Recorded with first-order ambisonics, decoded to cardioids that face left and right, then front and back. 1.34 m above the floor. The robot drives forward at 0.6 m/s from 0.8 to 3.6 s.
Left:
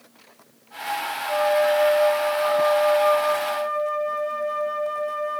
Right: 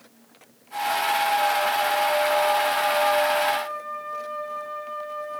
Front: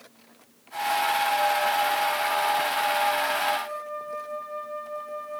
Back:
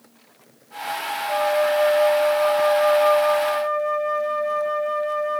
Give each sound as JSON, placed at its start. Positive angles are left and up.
{"t": 1.3, "sound": "a flute", "azimuth_deg": 135, "distance_m": 4.0}